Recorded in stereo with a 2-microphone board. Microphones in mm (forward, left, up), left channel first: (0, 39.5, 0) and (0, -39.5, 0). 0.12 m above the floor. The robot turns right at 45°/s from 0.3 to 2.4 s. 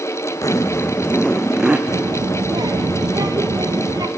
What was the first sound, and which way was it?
A zipper, 130° left.